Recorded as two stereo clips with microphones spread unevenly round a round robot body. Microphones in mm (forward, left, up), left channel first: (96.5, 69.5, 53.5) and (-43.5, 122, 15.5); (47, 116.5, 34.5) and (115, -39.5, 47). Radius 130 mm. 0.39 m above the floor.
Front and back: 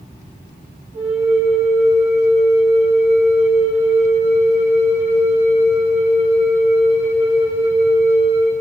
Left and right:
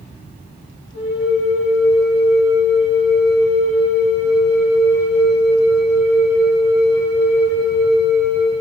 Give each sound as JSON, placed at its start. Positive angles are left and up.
{"t": 0.9, "sound": "a flute", "azimuth_deg": 120, "distance_m": 3.5}